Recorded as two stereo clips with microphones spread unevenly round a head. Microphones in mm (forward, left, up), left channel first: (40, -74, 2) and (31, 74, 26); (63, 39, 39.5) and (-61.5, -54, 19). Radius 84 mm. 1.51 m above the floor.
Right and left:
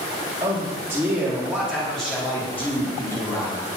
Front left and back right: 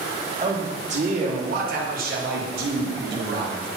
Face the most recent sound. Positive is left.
turn(degrees=-155)